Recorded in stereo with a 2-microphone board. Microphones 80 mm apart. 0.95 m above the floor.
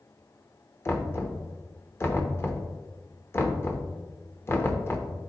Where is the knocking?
35° left (ahead or behind), 0.7 m.